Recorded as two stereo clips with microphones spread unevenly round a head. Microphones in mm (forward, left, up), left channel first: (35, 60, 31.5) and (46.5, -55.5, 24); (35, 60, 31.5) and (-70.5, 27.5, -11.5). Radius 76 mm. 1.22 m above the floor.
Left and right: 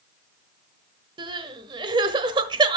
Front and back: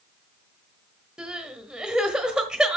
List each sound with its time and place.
1.2 s crying: 55° right, 1.2 m